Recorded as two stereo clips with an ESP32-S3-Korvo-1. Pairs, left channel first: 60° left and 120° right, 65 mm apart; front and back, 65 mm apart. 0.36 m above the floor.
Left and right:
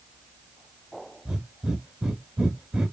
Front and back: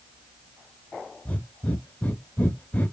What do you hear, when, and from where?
1.2 s breathing: 45° right, 0.7 m